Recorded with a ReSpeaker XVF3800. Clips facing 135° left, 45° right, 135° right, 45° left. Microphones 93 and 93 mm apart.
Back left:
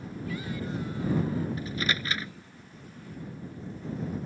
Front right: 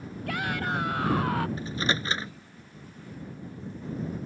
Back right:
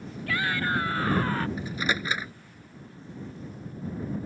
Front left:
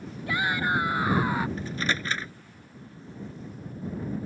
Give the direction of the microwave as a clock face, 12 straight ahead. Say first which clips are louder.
Front right 2 dB, back right 1 dB; 2 o'clock.